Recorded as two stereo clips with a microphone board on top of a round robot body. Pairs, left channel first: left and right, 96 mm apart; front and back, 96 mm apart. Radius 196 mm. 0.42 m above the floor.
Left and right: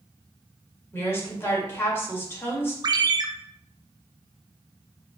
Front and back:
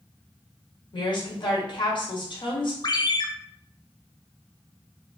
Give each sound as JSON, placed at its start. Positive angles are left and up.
{"t": 0.9, "sound": "a woman speaking", "azimuth_deg": 25, "distance_m": 2.0}
{"t": 2.8, "sound": "a ringtone", "azimuth_deg": -45, "distance_m": 0.6}